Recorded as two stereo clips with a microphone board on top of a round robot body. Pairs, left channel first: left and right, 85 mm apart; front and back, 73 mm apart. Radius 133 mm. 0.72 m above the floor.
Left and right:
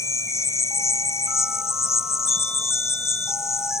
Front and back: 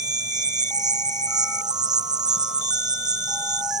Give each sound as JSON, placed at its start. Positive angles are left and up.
{"t": 0.0, "sound": "an insect", "azimuth_deg": 150}